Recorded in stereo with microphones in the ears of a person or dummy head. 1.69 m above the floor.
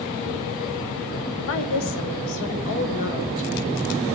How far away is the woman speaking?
About 1.7 m.